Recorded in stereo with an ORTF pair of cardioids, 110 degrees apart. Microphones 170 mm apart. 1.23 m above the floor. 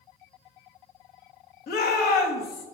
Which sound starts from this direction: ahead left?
A shout, at 1.7 s.